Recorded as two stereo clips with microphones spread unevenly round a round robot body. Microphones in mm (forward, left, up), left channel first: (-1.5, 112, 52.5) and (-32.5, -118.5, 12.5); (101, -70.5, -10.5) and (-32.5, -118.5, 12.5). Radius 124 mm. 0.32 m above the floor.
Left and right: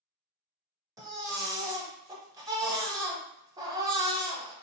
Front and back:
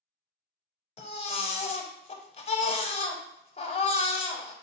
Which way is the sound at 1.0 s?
25° right.